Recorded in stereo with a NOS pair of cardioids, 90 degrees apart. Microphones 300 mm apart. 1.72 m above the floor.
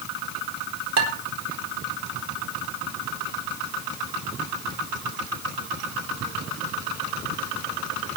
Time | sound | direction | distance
1.0 | dishes clattering | 60° right | 4 m